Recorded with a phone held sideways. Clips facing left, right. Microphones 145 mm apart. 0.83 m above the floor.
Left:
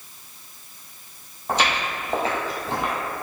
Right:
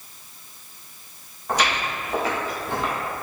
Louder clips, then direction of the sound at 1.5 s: Even; 25° left (ahead or behind).